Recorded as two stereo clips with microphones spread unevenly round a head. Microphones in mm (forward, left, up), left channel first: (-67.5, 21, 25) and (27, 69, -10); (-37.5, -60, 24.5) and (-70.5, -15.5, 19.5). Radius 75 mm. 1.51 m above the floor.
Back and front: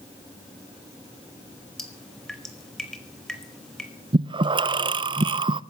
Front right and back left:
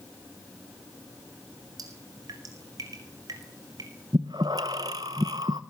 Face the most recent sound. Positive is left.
turn(degrees=80)